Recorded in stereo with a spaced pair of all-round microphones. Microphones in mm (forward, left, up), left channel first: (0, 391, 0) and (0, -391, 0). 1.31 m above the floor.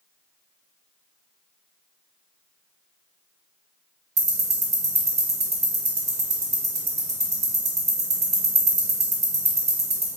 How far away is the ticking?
About 0.8 m.